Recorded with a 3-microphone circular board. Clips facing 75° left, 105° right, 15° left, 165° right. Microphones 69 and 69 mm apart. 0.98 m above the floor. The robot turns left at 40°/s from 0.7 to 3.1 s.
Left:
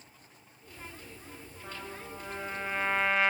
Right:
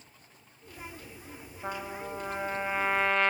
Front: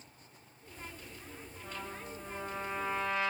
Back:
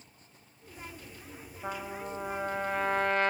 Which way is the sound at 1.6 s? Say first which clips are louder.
Right 7 dB, back 7 dB; 140° right.